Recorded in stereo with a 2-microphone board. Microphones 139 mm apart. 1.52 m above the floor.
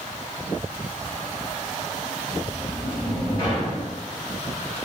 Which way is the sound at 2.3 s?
30° left (ahead or behind).